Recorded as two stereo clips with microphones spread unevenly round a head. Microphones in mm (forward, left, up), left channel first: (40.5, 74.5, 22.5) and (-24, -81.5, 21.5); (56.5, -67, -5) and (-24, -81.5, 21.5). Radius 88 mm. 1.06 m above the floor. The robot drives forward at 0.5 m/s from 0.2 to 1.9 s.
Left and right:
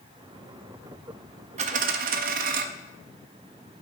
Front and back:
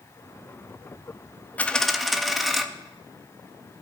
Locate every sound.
1.6 s a dropped coin: 70° right, 0.5 m; by 2.6 s 95° right, 0.5 m